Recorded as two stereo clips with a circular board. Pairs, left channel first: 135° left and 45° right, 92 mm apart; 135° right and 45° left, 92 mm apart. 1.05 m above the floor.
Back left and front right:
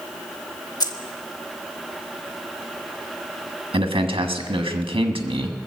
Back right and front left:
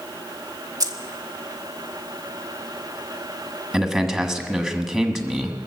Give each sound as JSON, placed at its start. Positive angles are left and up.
{"t": 0.8, "sound": "keys jangling", "azimuth_deg": 90, "distance_m": 1.0}
{"t": 3.7, "sound": "a man speaking", "azimuth_deg": -45, "distance_m": 1.4}